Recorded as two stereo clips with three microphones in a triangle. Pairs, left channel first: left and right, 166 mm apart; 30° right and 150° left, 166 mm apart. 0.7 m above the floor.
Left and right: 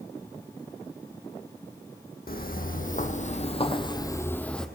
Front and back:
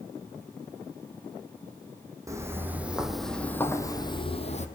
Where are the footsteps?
80° left, 1.5 m; by 4.7 s 5° left, 1.2 m.